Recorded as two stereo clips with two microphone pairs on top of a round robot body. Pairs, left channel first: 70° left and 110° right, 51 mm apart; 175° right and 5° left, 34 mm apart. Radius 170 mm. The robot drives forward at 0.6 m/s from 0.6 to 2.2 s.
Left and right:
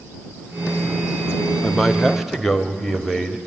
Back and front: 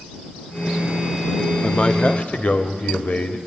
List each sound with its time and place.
1.6 s a man speaking: 135° left, 1.0 m; by 3.4 s 150° left, 1.2 m